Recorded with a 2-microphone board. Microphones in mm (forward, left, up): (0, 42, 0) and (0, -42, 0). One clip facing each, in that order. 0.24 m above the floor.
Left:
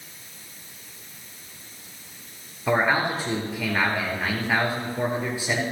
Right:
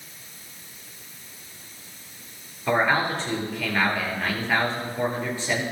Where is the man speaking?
10° left (ahead or behind), 5 m.